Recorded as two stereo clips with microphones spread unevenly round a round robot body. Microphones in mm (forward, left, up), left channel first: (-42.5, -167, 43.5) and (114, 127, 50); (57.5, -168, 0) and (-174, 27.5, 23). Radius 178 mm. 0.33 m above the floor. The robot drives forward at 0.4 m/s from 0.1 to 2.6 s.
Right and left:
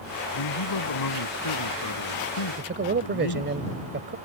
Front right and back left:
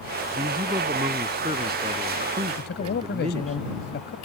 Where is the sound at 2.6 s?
10° left.